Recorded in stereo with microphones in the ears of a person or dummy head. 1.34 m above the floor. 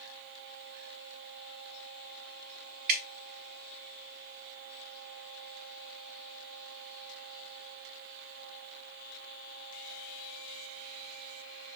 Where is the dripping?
50° right (ahead or behind), 0.9 m.